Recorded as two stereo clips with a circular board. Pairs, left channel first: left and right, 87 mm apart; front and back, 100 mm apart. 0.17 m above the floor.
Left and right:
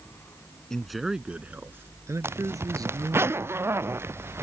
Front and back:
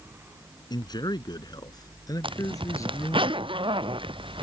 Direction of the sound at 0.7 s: 10° left.